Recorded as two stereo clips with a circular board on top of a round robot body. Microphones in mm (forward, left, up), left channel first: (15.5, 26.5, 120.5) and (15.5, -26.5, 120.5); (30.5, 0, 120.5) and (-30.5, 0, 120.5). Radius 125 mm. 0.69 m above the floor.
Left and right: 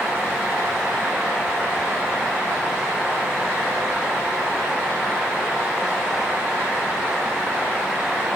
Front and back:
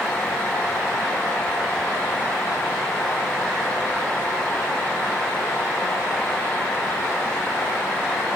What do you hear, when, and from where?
Only background noise.